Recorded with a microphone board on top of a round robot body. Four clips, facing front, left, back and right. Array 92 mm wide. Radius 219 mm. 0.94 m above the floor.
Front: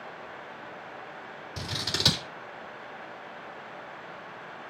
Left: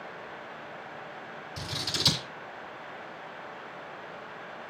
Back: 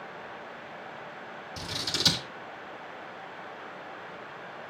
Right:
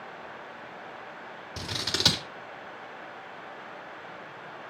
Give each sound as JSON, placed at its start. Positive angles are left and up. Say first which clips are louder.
{"t": 1.6, "sound": "scissors", "louder": "right 4 dB, front 2 dB", "azimuth_deg": -65, "distance_m": 3.5}